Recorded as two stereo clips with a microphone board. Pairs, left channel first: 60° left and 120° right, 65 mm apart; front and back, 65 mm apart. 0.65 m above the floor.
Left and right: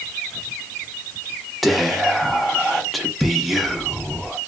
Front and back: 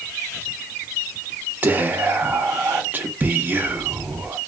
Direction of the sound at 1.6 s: 150° left.